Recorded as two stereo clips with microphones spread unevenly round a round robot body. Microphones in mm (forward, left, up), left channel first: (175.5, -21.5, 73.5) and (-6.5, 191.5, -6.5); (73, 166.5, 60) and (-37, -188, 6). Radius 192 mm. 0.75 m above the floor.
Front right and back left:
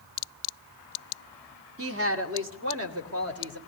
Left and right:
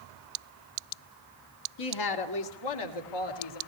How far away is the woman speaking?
About 2 m.